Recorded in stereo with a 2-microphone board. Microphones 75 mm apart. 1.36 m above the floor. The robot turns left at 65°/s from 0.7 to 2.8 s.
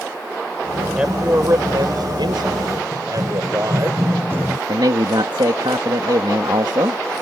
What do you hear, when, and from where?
1.0 s a man speaking: 10° right; by 3.9 s 130° right
2.9 s running footsteps: 60° right (ahead or behind); by 4.6 s 25° right (ahead or behind)
4.7 s a man speaking: 80° right